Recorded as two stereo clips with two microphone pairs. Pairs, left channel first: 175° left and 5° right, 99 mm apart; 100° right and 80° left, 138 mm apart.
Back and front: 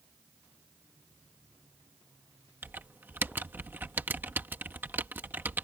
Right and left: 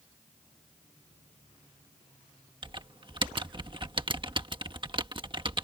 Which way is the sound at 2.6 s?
55° left.